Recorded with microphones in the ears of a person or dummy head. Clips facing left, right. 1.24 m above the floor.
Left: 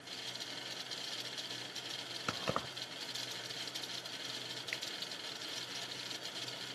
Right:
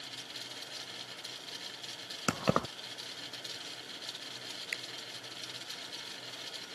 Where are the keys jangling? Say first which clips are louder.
Right 9 dB; 55° right (ahead or behind).